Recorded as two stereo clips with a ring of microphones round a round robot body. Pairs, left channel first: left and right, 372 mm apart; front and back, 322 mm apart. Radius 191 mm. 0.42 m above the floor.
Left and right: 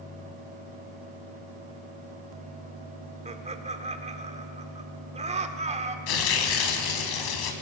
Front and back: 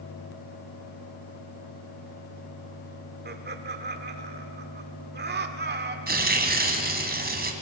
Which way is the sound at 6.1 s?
120° left.